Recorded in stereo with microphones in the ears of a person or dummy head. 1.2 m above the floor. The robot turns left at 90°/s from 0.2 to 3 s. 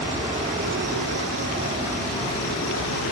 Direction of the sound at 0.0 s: 25° right.